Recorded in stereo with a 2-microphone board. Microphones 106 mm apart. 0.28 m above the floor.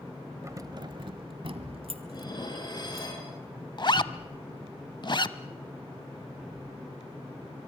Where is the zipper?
45° left (ahead or behind), 0.6 m.